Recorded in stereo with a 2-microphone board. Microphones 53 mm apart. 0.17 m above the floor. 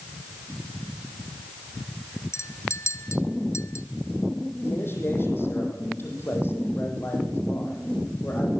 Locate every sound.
2.3 s a clink: 65° left (ahead or behind), 1.5 m
4.6 s a man speaking: 45° left (ahead or behind), 8.5 m